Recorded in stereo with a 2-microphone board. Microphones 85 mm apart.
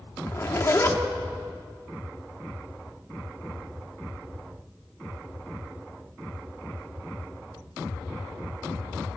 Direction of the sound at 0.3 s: 30° left (ahead or behind).